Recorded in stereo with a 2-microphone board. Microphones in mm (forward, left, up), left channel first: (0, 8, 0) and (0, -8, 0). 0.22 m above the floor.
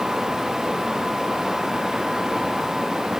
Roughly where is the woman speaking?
No woman speaking in this recording.